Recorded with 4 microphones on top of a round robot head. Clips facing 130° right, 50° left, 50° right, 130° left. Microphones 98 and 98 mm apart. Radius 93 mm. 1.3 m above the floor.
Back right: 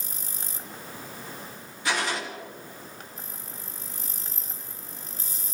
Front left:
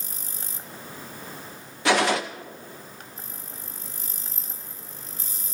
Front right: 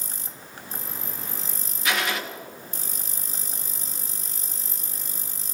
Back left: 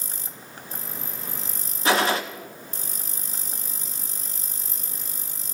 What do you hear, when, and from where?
1.9 s a gunshot: 75° left, 0.6 m